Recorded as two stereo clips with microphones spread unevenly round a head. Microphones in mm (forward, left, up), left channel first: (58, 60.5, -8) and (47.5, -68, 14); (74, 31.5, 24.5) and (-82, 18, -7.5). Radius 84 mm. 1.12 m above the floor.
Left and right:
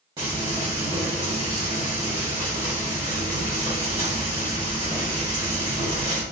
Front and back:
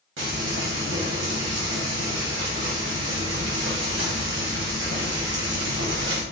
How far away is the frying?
About 2.5 m.